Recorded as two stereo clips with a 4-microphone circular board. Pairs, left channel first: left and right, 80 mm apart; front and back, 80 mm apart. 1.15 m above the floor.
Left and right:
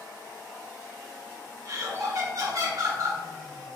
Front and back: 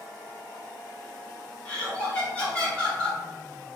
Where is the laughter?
75° right, 1.0 m.